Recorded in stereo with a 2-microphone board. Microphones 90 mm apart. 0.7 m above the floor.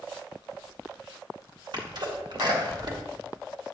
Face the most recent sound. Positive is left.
turn(degrees=-60)  # may be behind; listen again after turning